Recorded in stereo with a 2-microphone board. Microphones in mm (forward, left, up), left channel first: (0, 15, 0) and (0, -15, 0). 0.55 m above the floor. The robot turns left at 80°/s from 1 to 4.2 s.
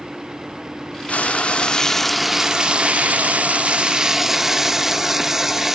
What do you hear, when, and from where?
1.1 s frying: 85° left, 0.5 m; by 5.8 s 165° right, 0.5 m